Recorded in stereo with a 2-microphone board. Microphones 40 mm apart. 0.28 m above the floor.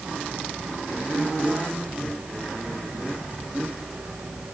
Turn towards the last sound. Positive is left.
No sound to turn to.